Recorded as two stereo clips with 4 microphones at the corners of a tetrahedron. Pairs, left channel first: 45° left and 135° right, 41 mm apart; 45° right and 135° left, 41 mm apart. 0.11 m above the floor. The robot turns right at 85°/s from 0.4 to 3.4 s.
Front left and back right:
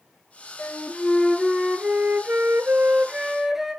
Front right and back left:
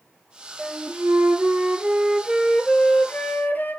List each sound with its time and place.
0.6 s a flute: 65° left, 0.8 m; by 3.8 s 55° right, 0.8 m